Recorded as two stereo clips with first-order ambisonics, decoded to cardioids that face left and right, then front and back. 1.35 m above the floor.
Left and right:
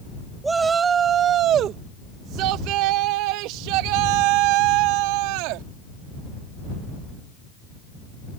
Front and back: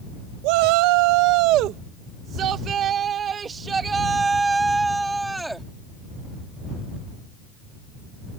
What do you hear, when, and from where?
0.4 s a shout: 170° right; by 5.7 s 95° right